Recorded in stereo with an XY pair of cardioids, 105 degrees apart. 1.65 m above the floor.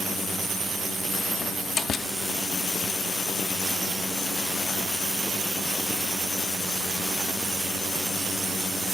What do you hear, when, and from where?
1.4 s a door slam: 40° left